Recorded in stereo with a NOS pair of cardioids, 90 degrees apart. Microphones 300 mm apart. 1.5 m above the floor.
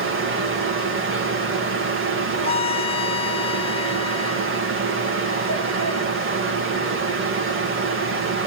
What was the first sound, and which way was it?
A fan, 45° right.